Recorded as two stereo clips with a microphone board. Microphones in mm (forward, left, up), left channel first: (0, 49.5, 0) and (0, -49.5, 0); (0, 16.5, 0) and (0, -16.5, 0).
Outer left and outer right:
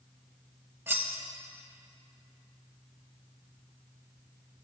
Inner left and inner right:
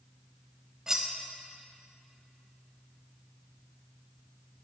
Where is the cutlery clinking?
20° right (ahead or behind), 0.6 m.